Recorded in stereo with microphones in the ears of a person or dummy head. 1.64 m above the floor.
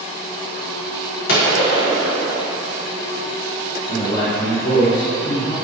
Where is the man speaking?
65° left (ahead or behind), 1.9 m.